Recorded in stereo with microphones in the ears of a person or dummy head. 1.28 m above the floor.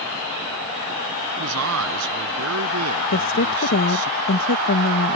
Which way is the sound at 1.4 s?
85° right.